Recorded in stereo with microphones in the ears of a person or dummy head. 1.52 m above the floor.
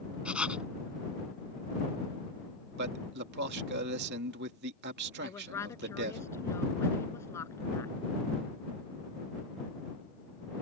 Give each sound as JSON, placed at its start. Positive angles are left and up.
{"t": 0.2, "sound": "writing", "side_deg": -10}
{"t": 2.8, "sound": "a man speaking", "side_deg": -55}
{"t": 5.2, "sound": "a woman speaking", "side_deg": 10}